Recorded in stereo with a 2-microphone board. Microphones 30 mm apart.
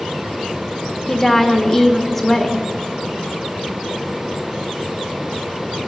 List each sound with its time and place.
1.1 s a woman speaking: 10° left (ahead or behind), 1.5 m